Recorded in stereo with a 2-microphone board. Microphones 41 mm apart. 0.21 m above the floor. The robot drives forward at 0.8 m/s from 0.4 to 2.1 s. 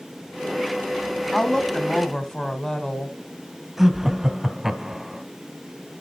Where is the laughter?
10° right (ahead or behind), 1.0 m.